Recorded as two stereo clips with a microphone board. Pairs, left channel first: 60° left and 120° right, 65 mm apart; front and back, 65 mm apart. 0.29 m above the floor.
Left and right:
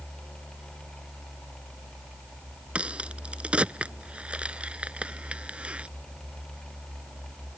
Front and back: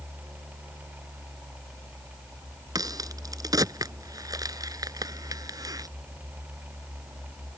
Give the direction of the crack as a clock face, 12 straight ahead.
6 o'clock.